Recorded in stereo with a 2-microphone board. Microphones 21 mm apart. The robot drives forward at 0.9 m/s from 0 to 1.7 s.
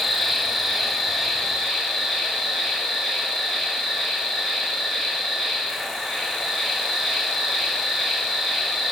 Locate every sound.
0.0 s an insect: 5° left (ahead or behind), 1.5 m